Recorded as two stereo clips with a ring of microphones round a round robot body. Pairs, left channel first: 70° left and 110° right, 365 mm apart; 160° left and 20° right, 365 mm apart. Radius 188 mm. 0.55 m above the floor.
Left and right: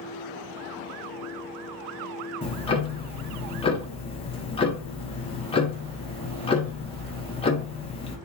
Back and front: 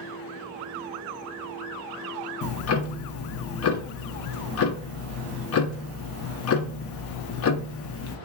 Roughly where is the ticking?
Behind left.